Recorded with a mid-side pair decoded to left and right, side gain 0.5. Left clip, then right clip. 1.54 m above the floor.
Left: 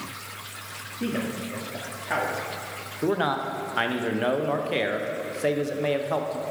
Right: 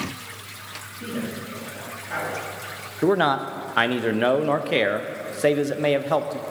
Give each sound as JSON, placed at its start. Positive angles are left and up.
{"t": 1.0, "sound": "a man speaking", "azimuth_deg": 50, "distance_m": 2.5}
{"t": 3.0, "sound": "a man speaking", "azimuth_deg": -35, "distance_m": 0.7}